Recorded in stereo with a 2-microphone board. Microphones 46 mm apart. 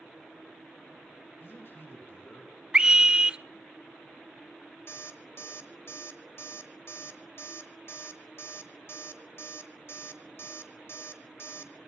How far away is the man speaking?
About 3.5 m.